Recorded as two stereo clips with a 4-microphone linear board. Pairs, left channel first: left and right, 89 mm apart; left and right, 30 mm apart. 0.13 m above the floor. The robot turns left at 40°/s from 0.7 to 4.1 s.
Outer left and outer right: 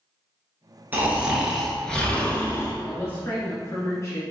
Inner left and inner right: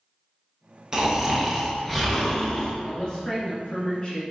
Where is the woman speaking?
140° left, 1.5 m; by 4.2 s 90° left, 1.5 m.